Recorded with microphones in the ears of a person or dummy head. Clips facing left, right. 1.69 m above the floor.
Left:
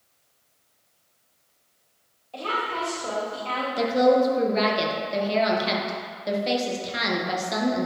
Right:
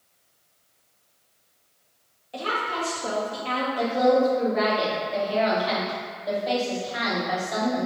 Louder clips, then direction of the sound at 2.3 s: Right 1 dB; 15° right (ahead or behind).